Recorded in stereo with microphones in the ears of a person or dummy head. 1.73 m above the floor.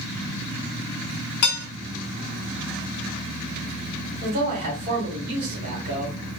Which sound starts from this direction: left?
Dishes clattering, at 1.4 s.